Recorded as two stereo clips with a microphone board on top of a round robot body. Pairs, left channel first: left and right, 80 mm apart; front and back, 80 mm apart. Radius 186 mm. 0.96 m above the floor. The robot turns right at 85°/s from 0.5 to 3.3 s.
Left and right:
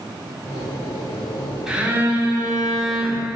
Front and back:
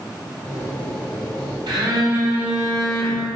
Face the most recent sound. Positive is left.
turn(degrees=-35)